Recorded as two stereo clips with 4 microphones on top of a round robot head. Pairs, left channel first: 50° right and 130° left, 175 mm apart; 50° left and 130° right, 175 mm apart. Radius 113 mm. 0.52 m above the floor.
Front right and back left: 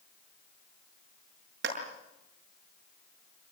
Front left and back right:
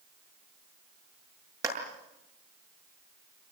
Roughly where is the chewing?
No chewing in this recording.